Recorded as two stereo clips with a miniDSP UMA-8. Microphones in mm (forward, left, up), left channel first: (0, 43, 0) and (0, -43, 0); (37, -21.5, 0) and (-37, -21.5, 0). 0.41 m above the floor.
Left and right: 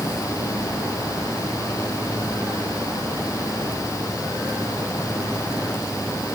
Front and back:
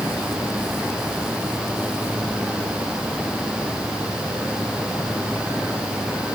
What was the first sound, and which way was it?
Only background noise.